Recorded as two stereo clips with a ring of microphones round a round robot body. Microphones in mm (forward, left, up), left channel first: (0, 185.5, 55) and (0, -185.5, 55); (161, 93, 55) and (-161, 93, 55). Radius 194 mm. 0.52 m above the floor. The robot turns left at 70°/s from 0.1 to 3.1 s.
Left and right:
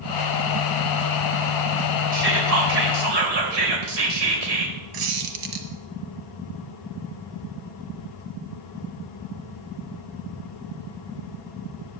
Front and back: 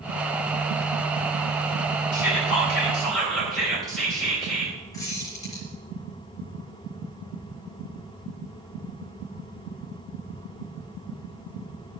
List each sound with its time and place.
2.1 s whispering: 20° right, 3 m; by 4.8 s 90° right, 3 m
4.9 s a squeak: 80° right, 1.4 m